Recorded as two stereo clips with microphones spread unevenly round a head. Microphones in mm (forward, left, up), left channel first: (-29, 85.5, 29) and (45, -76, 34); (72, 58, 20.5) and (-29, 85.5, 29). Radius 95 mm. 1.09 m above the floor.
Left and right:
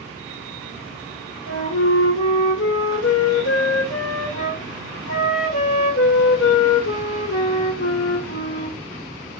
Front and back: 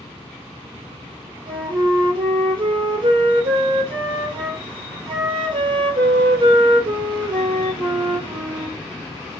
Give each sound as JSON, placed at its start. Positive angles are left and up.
{"t": 1.5, "sound": "a flute", "azimuth_deg": 130, "distance_m": 3.0}